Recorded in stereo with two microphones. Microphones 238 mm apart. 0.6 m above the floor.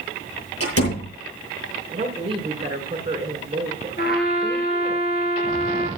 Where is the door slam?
75° left (ahead or behind), 9.5 m.